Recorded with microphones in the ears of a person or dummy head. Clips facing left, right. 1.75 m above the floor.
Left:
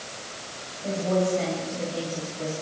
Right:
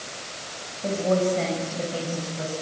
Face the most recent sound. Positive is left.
turn(degrees=-55)  # may be behind; listen again after turning